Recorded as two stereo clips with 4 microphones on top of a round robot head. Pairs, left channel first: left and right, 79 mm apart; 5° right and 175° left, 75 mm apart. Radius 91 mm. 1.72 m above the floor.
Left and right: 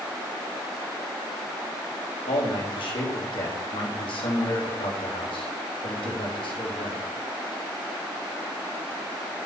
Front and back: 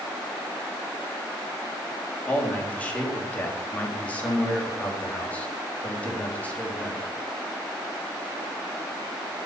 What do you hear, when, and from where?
2.3 s a man speaking: 70° left, 4.5 m